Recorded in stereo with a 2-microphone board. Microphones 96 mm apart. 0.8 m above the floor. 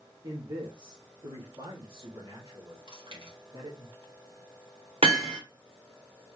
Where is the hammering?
90° right, 1.3 m.